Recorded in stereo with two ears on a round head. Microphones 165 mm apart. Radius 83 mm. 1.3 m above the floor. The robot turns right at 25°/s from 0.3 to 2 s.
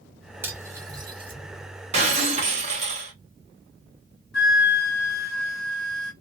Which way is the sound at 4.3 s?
55° left (ahead or behind).